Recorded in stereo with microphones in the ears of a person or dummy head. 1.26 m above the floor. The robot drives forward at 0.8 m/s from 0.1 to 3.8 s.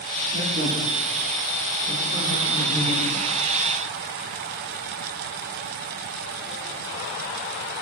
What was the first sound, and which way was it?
A man speaking, 55° right (ahead or behind).